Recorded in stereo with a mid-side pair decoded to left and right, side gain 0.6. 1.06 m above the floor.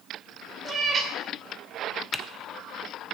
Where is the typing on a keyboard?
Straight ahead, 0.9 m.